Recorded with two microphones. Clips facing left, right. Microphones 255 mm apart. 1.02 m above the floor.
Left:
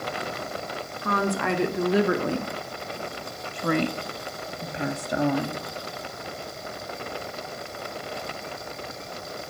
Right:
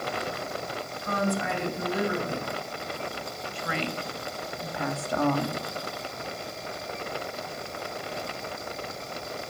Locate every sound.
1.0 s a woman speaking: 70° left (ahead or behind), 3 m; by 5.6 s 5° left (ahead or behind), 2 m